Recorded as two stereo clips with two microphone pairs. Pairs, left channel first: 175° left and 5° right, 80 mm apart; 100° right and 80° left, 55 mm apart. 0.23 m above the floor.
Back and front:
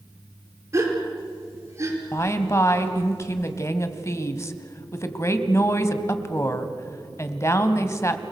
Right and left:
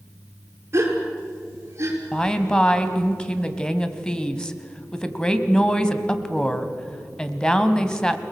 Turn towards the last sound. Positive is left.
turn(degrees=-165)